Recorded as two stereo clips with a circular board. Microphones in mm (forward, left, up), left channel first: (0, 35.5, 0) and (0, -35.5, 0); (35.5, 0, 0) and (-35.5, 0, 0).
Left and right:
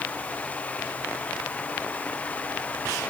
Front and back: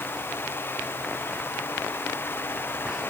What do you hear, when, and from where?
Only background noise.